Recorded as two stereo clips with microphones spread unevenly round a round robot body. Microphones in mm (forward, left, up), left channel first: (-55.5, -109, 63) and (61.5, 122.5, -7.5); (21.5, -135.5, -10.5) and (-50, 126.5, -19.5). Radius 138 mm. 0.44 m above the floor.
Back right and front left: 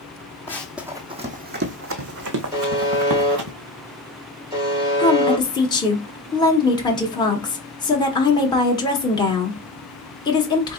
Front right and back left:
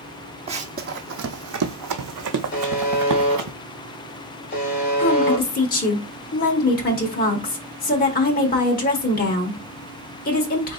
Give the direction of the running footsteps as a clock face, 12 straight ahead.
6 o'clock.